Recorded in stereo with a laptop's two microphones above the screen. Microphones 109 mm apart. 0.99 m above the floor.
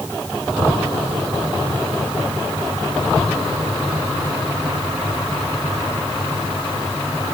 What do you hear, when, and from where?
Only background noise.